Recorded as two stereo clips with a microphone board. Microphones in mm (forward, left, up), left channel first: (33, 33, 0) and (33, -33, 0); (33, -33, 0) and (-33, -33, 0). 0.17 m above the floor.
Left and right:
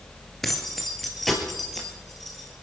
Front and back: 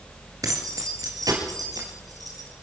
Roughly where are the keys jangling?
Behind.